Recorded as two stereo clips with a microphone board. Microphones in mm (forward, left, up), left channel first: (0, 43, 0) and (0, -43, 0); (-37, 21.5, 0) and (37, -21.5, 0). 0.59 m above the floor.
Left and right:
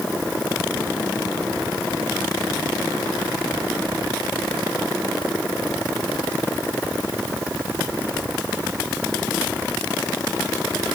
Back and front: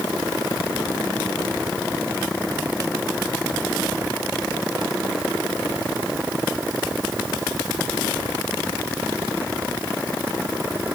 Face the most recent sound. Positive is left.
No sound to turn to.